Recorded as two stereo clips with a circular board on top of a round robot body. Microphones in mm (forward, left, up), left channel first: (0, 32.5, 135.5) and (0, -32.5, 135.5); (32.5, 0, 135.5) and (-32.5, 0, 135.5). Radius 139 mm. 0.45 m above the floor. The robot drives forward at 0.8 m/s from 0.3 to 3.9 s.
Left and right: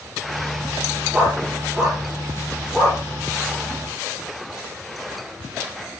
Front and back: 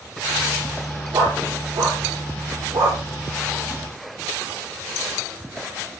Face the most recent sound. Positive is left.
turn(degrees=-165)